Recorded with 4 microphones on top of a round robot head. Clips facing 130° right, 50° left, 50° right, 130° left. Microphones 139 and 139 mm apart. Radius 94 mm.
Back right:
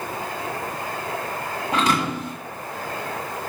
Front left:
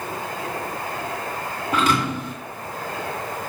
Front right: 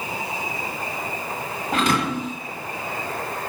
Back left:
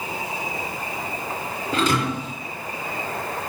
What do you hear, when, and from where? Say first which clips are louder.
1.7 s a thud: front left 1 dB, even; 60° right, 1.4 m